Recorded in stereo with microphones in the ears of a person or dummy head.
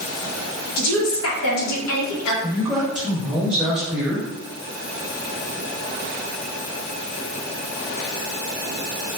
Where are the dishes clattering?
No dishes clattering in this recording.